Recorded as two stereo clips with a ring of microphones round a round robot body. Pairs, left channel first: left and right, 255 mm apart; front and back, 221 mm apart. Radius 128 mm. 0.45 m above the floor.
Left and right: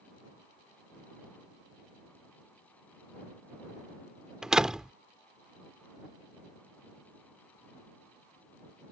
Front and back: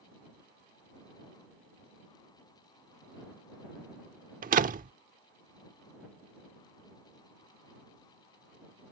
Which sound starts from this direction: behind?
A door slam, at 4.4 s.